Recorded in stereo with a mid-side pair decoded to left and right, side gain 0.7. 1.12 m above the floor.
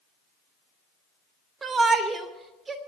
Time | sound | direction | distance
1.6 | a shout | 20° right | 3 m